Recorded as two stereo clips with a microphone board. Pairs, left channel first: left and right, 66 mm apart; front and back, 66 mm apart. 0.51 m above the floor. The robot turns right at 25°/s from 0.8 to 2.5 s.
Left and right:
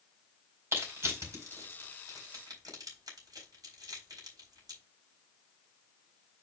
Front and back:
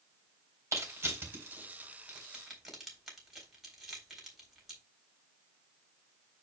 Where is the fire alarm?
I don't hear a fire alarm.